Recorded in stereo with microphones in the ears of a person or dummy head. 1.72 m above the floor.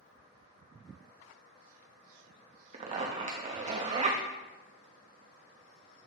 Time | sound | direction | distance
2.7 | a zipper | 35° right (ahead or behind) | 0.8 m